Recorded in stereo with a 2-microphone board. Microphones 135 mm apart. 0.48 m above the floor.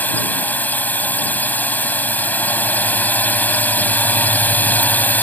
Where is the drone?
10° left (ahead or behind).